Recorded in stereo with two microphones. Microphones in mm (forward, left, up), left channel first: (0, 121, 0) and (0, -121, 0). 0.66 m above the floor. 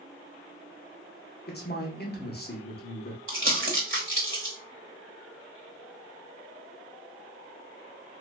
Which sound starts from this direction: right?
Crumpling, at 3.3 s.